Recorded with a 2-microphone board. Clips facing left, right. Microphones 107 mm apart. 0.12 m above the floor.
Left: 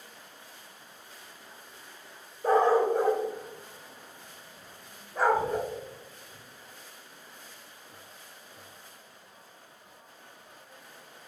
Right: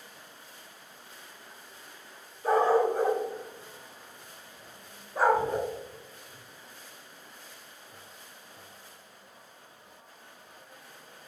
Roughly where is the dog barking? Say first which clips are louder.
Left 1 dB; left.